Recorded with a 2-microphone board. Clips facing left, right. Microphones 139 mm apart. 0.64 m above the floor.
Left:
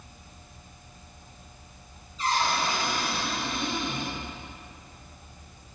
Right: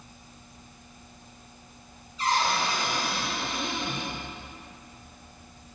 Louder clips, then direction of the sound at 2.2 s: Right 1 dB; 70° right (ahead or behind).